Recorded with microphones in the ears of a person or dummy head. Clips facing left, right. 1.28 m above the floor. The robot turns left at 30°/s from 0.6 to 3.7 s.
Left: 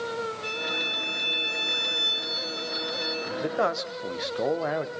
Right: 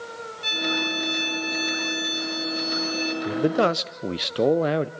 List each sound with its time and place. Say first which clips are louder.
0.4 s a violin: right 5 dB; 75° right, 1.9 m; by 3.1 s 150° right, 1.9 m
3.2 s a man speaking: right 6 dB; 45° right (ahead or behind), 0.5 m; by 4.9 s 35° right (ahead or behind), 0.5 m